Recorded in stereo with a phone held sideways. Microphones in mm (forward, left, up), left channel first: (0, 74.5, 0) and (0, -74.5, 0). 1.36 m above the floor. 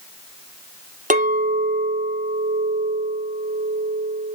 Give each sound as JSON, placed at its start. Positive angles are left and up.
{"t": 1.1, "sound": "a clink", "side_deg": -55, "distance_m": 1.0}